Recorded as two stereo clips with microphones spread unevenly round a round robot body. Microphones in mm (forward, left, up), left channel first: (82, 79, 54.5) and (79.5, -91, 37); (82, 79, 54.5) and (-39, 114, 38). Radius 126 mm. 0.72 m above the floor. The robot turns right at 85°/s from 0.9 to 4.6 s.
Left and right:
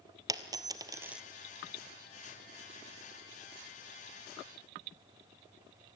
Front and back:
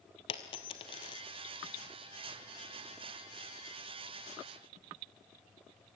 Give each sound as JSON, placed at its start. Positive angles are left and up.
{"t": 0.3, "sound": "a dropped coin", "azimuth_deg": -25, "distance_m": 0.9}